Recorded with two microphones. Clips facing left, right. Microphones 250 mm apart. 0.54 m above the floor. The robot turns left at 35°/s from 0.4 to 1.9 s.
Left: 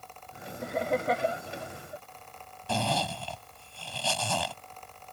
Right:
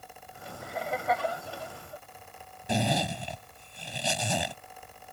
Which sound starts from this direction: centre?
A zipper, at 2.7 s.